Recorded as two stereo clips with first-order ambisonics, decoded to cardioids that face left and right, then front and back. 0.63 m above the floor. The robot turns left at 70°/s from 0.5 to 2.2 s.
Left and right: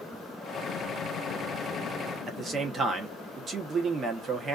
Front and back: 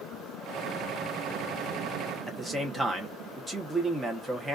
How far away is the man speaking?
About 0.7 m.